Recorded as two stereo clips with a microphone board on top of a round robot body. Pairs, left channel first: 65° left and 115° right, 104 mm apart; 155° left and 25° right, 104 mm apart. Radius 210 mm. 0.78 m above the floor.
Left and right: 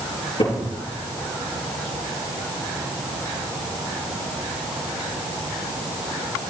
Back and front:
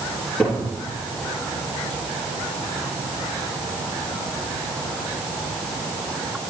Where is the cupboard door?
80° left, 7 m.